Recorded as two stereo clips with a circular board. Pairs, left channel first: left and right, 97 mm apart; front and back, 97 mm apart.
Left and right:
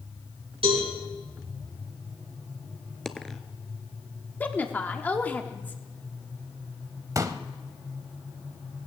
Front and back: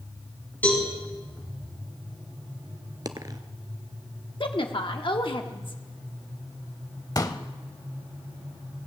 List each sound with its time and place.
0.6 s a cowbell: 70° right, 4 m
3.0 s a dropped coin: 175° left, 0.8 m
4.4 s a woman speaking: 20° left, 1.1 m
7.2 s a pop: 40° right, 0.7 m